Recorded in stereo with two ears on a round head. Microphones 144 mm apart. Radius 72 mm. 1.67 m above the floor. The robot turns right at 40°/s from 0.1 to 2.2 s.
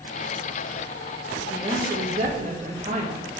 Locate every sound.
1.5 s a woman speaking: 20° right (ahead or behind), 1.9 m; by 3.4 s 50° right (ahead or behind), 1.9 m